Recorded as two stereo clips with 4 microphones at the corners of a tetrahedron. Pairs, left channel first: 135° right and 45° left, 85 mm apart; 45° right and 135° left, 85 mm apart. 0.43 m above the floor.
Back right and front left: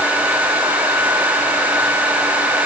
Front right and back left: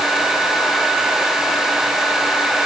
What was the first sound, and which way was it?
Only background noise.